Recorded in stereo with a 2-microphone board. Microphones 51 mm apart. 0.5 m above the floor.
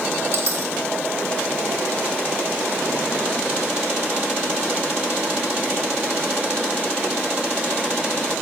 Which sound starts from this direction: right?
A dropped coin, at 0.3 s.